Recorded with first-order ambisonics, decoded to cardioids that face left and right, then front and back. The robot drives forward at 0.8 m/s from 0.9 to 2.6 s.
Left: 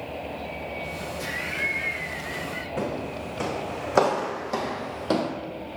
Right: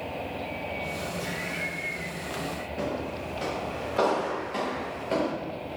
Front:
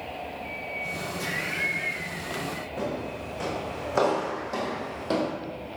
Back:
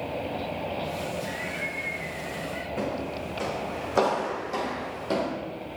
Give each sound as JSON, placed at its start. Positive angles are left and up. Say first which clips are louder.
{"t": 1.2, "sound": "laughter", "louder": "left 8 dB, front 3 dB", "azimuth_deg": 35, "distance_m": 1.3}
{"t": 2.8, "sound": "footsteps", "louder": "left 1 dB, back 1 dB", "azimuth_deg": 95, "distance_m": 5.0}